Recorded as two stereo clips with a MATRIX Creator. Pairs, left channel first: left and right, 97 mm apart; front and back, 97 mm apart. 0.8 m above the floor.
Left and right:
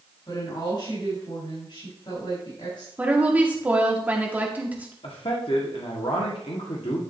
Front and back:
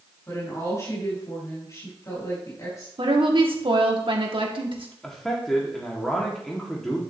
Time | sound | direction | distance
0.3 | a woman speaking | 55° left | 5 m
3.0 | a woman speaking | 160° right | 1.8 m
5.0 | a man speaking | 85° left | 1.7 m